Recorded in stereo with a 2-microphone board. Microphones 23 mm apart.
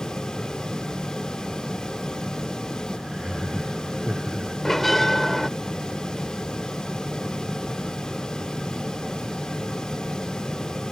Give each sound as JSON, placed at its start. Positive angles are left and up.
{"t": 3.0, "sound": "laughter", "side_deg": -20}
{"t": 4.7, "sound": "a bell", "side_deg": 10}